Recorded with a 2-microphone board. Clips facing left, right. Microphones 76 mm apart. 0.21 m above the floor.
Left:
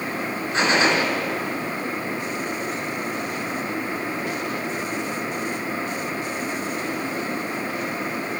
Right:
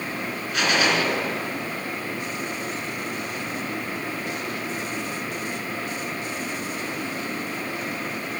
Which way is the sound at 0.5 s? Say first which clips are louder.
Left 2 dB; 30° left (ahead or behind).